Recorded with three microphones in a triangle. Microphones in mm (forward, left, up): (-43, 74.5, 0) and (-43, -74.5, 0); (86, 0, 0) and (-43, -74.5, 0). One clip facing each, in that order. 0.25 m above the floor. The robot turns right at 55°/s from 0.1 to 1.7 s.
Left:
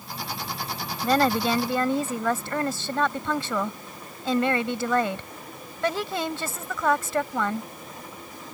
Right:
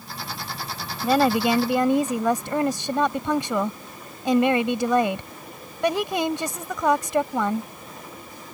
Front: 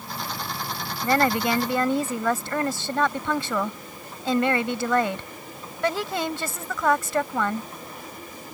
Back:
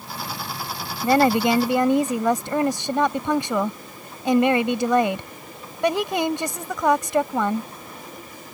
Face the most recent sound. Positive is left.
turn(degrees=-120)